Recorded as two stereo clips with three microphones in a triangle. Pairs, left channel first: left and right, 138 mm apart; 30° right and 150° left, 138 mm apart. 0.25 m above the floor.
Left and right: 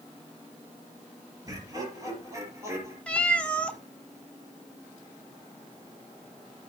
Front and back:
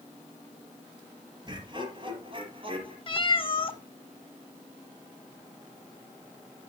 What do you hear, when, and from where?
1.5 s laughter: 155° right, 5 m; by 3.0 s 160° right, 6 m
3.1 s a cat meowing: 10° left, 0.9 m